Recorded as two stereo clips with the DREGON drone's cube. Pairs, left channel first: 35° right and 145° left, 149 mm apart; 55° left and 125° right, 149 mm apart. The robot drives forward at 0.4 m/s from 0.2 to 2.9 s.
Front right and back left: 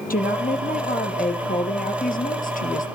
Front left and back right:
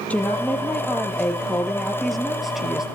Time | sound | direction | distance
0.1 | a woman speaking | 25° right | 3 m